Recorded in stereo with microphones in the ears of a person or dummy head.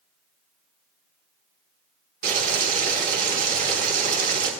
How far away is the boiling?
About 3 m.